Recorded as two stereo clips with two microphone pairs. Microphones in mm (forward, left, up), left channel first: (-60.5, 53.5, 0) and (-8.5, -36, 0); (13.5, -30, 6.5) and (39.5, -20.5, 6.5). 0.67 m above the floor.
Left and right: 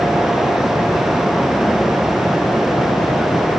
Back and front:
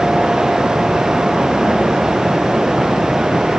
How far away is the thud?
No thud in this recording.